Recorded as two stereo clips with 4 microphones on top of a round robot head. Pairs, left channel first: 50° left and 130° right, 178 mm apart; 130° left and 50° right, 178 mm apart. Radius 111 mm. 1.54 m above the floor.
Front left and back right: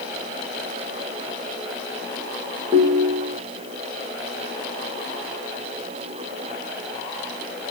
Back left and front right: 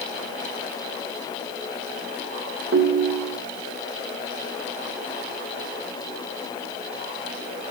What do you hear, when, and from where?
2.7 s a ringtone: 75° right, 1.1 m